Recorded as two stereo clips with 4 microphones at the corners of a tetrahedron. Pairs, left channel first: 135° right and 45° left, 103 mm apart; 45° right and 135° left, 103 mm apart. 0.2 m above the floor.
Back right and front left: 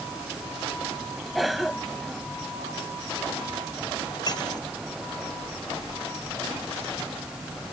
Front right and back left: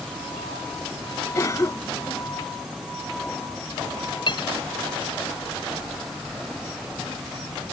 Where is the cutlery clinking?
85° right.